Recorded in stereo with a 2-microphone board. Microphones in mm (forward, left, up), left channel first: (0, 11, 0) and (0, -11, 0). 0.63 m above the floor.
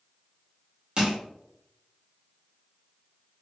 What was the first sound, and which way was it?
Crushing, 30° right (ahead or behind).